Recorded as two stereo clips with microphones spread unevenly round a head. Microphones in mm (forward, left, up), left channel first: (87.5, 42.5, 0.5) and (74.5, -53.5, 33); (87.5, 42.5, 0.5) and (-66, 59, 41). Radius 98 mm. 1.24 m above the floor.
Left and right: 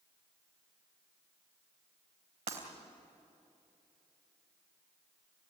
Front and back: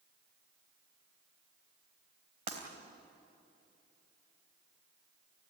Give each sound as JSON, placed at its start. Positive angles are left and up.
{"t": 2.5, "sound": "breaking glass", "azimuth_deg": -130, "distance_m": 3.0}